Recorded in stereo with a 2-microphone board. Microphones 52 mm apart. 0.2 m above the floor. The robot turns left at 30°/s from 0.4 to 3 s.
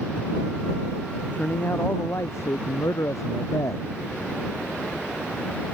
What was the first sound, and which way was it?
A man speaking, 150° left.